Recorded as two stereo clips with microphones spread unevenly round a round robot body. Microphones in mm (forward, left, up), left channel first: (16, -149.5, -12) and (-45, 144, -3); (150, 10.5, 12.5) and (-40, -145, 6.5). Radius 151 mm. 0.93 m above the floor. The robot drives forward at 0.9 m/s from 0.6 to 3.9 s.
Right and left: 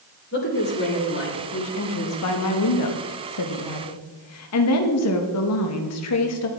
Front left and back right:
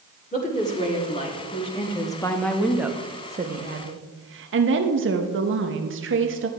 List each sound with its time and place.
0.3 s a woman speaking: 20° right, 3 m; by 6.5 s 110° right, 1.1 m